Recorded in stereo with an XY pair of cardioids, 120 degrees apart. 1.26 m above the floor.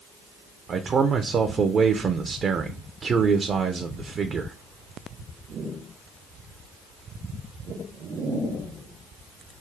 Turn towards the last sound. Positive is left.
turn(degrees=-40)